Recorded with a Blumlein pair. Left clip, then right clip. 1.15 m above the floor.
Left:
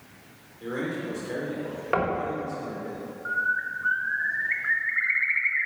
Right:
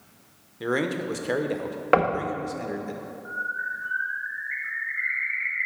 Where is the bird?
65° left, 1.0 m.